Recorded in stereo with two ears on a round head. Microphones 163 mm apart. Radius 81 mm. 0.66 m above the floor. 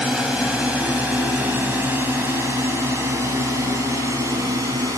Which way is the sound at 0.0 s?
5° right (ahead or behind).